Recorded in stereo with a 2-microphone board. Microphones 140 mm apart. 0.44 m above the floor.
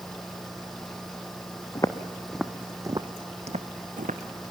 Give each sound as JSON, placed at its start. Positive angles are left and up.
{"t": 1.8, "sound": "footsteps", "side_deg": 25, "distance_m": 1.4}